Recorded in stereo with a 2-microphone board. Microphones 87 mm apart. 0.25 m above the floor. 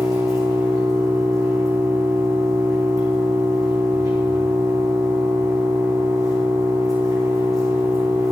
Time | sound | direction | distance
0.0 | an engine running | 40° right (ahead or behind) | 4 m